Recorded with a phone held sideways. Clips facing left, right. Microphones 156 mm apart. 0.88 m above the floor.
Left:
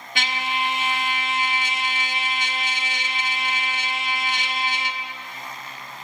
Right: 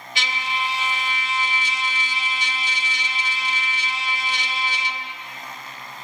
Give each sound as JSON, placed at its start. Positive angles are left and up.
{"t": 0.1, "sound": "a trumpet", "side_deg": 55, "distance_m": 1.2}